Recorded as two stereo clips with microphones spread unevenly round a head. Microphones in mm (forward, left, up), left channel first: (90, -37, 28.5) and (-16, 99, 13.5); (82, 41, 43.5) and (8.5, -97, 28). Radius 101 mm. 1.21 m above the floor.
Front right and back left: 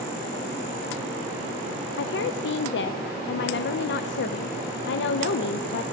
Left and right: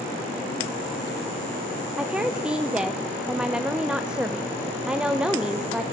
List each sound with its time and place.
2.0 s a woman speaking: 35° right, 0.7 m